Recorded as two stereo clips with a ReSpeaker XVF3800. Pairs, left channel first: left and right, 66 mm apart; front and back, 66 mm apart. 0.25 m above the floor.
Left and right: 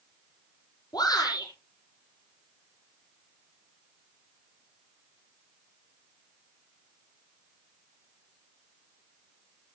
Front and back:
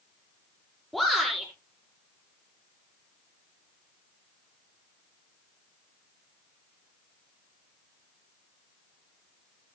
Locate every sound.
0.9 s a shout: 85° left, 6.5 m